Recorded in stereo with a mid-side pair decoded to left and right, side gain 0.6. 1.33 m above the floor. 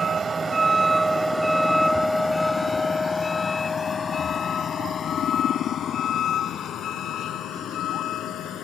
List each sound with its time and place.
0.0 s a vehicle: 30° right; by 8.7 s 60° left